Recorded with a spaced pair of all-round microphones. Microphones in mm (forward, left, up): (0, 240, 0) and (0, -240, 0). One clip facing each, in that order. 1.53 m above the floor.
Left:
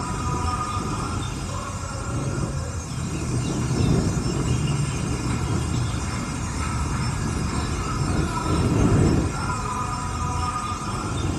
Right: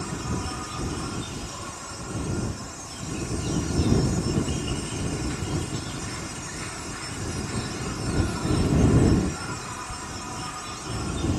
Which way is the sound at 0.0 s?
65° left (ahead or behind).